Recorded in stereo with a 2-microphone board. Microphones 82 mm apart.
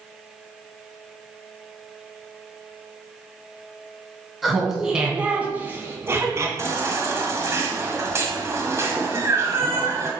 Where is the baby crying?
35° right (ahead or behind), 1.3 m.